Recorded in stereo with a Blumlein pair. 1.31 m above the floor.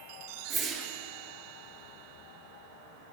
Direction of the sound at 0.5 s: 20° right.